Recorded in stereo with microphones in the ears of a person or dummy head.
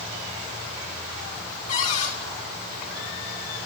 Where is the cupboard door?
45° left (ahead or behind), 6.5 m.